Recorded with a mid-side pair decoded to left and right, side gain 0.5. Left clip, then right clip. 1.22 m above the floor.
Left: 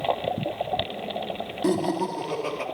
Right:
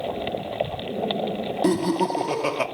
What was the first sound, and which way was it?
Laughter, 25° right.